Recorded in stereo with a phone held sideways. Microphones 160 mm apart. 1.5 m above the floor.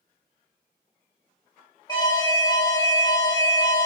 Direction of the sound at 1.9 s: 25° left (ahead or behind).